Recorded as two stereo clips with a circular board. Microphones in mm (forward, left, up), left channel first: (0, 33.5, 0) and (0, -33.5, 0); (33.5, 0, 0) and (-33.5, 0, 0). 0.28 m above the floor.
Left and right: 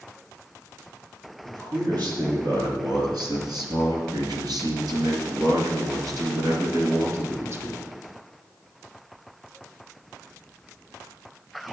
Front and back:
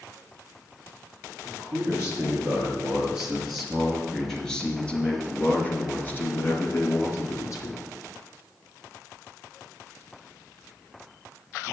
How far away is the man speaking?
About 5.5 m.